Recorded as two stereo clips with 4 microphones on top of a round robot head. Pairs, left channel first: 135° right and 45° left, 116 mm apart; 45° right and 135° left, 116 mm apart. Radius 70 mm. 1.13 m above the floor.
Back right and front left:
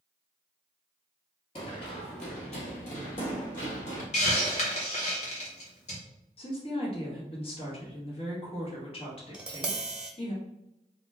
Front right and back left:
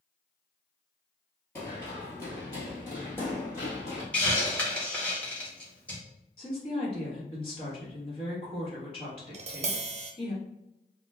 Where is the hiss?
125° right, 1.6 m.